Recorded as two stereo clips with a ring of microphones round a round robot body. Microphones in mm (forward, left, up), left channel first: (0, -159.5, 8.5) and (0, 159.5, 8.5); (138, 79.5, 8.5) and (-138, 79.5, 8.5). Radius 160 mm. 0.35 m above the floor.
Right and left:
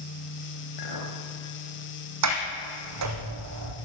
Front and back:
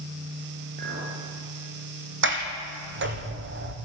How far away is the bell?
I don't hear a bell.